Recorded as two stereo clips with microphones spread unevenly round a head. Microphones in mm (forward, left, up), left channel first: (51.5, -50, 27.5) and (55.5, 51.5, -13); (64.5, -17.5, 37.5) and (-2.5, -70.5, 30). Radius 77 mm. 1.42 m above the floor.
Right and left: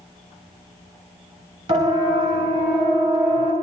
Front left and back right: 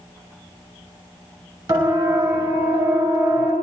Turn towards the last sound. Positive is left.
turn(degrees=150)